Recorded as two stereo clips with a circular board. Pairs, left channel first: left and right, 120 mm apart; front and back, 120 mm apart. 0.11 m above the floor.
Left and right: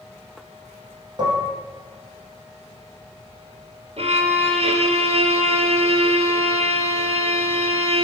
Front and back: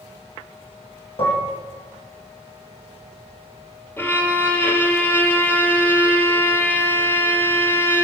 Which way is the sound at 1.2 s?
40° right.